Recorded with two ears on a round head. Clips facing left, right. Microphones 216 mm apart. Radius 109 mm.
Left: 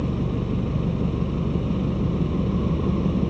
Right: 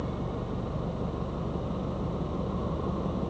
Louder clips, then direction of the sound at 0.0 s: Left 8 dB; 40° left (ahead or behind).